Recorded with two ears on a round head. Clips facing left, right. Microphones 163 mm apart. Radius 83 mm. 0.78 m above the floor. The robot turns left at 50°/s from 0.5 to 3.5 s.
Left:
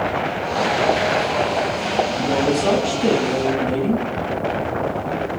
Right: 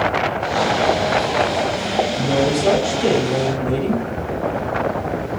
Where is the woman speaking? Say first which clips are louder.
Right 1 dB; 10° left, 2.5 m; by 4.0 s 60° right, 2.5 m.